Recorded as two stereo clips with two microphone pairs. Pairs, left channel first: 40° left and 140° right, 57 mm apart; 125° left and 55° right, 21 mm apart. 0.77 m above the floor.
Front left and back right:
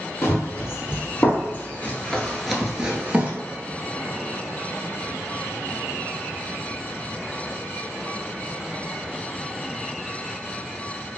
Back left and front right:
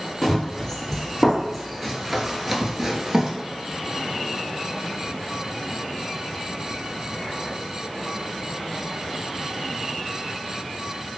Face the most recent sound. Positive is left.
turn(degrees=-100)